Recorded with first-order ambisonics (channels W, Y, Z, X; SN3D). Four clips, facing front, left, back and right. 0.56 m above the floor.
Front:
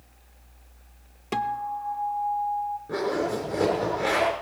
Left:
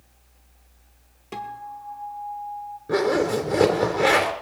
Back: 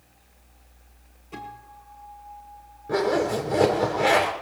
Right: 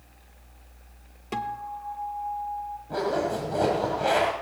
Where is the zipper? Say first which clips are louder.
Left 6 dB, back 6 dB; 105° left, 3 m.